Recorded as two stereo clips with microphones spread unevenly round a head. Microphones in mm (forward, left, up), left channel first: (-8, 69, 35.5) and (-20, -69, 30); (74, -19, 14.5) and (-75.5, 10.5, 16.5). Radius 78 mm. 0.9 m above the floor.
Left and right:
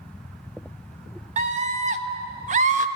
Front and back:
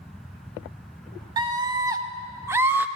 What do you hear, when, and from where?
1.4 s a scream: 130° right, 1.8 m; by 2.9 s 115° right, 1.2 m